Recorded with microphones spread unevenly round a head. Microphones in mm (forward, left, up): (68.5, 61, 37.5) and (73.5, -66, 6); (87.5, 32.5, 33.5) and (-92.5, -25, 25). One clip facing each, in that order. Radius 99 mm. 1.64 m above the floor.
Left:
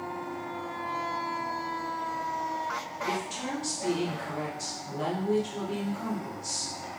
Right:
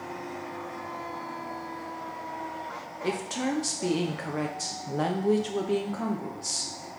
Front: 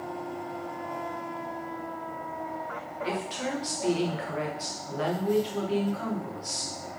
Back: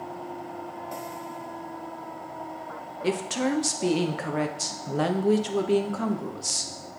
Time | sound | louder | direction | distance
3.0 | a woman speaking | right 5 dB, back 7 dB | 130° right | 1.0 m